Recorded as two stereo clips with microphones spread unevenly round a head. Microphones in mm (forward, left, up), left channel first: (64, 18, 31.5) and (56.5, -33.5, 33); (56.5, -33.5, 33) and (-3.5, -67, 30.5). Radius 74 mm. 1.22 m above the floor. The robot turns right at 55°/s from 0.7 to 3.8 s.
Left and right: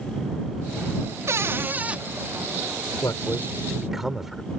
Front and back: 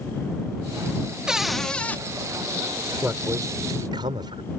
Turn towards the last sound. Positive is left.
turn(degrees=175)